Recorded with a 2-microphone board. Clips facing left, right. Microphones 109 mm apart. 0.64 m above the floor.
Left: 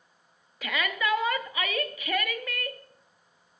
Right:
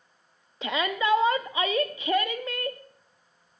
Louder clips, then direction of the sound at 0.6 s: Right 3 dB; 25° right (ahead or behind).